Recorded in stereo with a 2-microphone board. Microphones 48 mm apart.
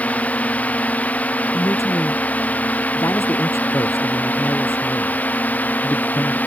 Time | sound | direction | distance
0.0 | a drone | 30° left (ahead or behind) | ?
1.5 | a man speaking | 75° left (ahead or behind) | ?